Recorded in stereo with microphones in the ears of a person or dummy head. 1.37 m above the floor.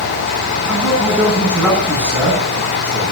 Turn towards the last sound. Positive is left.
turn(degrees=-10)  # may be behind; listen again after turning